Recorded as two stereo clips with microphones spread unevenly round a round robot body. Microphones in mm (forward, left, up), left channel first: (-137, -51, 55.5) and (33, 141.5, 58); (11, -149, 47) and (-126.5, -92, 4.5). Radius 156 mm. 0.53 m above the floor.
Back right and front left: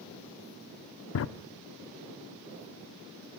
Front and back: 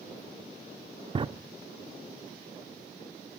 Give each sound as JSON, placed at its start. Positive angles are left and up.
{"t": 1.1, "sound": "a drawer", "azimuth_deg": -160, "distance_m": 0.6}